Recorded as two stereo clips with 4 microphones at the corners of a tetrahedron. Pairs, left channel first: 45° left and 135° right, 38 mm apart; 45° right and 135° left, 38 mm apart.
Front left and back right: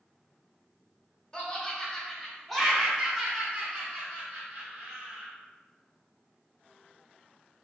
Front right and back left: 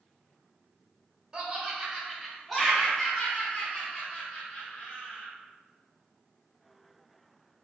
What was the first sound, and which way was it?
Laughter, 85° left.